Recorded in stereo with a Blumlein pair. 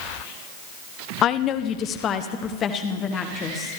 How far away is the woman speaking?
About 0.5 m.